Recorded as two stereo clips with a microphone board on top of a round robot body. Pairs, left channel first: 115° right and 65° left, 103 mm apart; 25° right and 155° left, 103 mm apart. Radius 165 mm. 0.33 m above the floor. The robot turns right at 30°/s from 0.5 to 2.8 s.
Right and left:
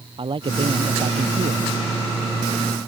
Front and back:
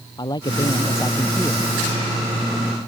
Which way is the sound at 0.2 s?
25° left.